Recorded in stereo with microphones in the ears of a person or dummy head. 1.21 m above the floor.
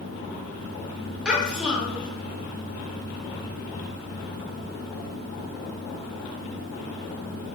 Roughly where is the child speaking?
Centre.